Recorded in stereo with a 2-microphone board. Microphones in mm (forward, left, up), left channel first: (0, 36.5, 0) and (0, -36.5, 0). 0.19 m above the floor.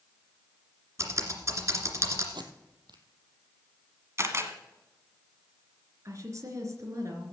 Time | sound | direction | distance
1.0 | typing on a keyboard | 40° right (ahead or behind) | 2 m
2.3 | tape being pulled | 85° right | 1.2 m
4.2 | a camera shutter | 40° right (ahead or behind) | 1.3 m
6.0 | a woman speaking | 45° right (ahead or behind) | 3.5 m